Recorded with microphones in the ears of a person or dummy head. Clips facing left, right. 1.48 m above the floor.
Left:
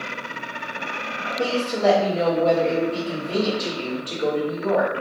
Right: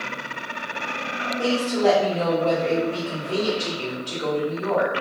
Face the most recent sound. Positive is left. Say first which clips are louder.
# even
turn(degrees=25)  # may be behind; listen again after turning